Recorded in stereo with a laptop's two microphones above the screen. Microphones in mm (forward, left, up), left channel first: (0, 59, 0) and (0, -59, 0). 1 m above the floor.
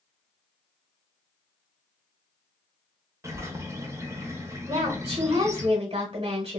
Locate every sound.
3.2 s a bird: 25° right (ahead or behind), 0.6 m
4.7 s a woman speaking: 45° right (ahead or behind), 1.1 m